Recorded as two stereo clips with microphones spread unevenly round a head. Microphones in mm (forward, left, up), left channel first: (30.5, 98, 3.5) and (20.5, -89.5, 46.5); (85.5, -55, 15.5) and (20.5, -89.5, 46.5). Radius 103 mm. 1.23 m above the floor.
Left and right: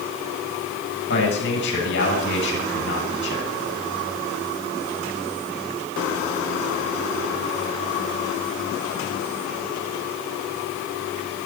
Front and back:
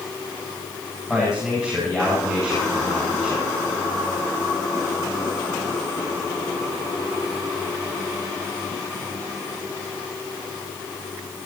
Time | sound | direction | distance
1.1 | a man speaking | 120° left | 8.5 m